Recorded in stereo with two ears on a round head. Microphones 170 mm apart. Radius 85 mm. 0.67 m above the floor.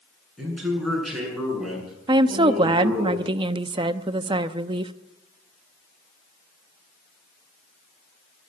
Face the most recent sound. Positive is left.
turn(degrees=-25)  # may be behind; listen again after turning